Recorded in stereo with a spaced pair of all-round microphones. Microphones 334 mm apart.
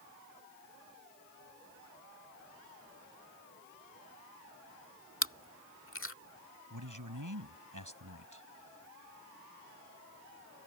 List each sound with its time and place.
5.2 s chewing: 40° left (ahead or behind)
6.7 s a man speaking: 65° right (ahead or behind)